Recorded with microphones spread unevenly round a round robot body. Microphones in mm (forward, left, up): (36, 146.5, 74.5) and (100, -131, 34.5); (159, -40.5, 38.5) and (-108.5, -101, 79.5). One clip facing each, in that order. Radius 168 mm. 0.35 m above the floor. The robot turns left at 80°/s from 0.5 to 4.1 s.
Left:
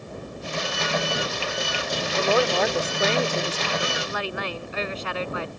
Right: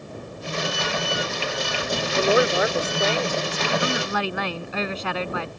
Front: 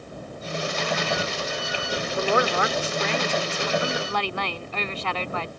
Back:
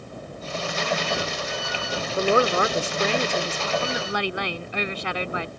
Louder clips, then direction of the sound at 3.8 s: Right 4 dB, back 1 dB; 70° right.